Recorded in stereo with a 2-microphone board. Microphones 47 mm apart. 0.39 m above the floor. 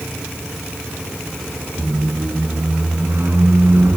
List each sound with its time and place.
1.8 s a squeak: 55° right (ahead or behind)